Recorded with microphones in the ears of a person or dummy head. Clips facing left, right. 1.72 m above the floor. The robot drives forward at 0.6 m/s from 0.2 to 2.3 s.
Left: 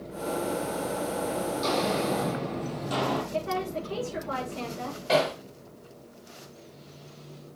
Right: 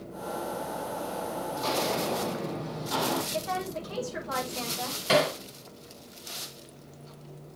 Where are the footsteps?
40° left (ahead or behind), 4 m; by 3.2 s 50° left (ahead or behind), 2.5 m.